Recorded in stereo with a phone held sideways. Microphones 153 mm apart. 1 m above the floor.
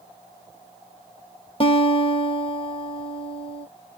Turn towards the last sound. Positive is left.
turn(degrees=35)  # may be behind; listen again after turning